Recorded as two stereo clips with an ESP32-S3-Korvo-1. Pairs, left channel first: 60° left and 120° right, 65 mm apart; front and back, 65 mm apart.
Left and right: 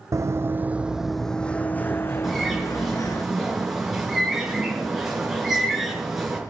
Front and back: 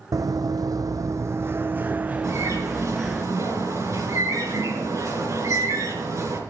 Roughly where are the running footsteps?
Behind right.